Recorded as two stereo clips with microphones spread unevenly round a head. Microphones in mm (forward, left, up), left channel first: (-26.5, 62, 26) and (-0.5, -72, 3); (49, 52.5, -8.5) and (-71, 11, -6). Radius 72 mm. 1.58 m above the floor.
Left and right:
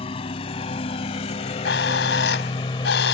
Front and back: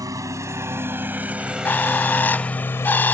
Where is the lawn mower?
140° left; by 3.1 s 70° left.